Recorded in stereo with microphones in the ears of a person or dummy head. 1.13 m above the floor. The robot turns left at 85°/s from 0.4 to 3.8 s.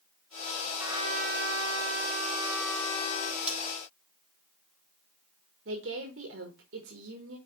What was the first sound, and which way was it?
A trumpet, 10° right.